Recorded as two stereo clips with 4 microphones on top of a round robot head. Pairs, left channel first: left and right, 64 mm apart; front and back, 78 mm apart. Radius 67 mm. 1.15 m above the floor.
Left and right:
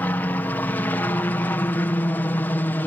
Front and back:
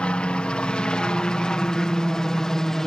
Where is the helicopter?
60° left; by 2.9 s 75° left.